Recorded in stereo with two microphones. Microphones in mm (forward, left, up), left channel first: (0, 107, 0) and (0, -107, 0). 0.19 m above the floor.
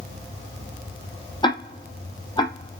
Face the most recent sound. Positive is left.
turn(degrees=20)  # may be behind; listen again after turning